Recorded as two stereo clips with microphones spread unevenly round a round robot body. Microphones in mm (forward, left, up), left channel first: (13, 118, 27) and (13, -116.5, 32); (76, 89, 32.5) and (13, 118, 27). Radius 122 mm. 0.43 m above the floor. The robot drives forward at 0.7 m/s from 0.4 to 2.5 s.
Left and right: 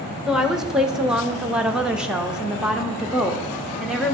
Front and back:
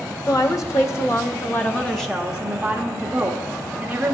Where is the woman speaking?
Straight ahead, 1.4 m; by 4.1 s 175° right, 0.9 m.